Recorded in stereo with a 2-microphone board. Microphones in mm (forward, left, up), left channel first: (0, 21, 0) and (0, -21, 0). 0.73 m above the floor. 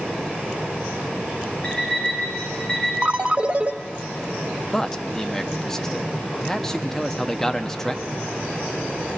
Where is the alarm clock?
20° left (ahead or behind), 5.5 m.